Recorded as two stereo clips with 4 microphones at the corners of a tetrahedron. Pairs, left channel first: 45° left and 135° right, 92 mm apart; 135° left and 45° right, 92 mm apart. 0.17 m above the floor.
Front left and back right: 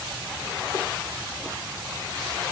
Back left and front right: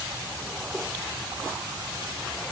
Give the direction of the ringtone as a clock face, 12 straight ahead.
No ringtone in this recording.